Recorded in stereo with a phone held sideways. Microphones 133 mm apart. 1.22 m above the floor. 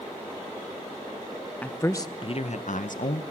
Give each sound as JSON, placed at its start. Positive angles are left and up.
{"t": 1.6, "sound": "a man speaking", "side_deg": 10, "distance_m": 1.1}